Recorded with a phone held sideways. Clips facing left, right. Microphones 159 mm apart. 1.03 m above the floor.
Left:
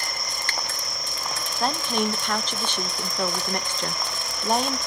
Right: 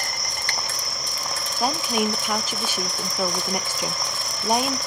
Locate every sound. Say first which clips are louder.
0.0 s an insect: right 1 dB; 80° right, 6.5 m
1.6 s a woman speaking: right 1 dB; 10° right (ahead or behind), 0.7 m